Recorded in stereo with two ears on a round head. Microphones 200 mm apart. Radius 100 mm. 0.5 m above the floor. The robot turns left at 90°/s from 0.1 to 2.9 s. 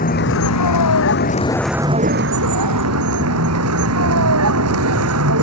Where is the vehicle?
140° left; by 5.4 s 110° right.